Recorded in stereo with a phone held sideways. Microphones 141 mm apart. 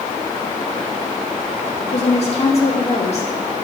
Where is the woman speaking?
50° left (ahead or behind), 2.5 m.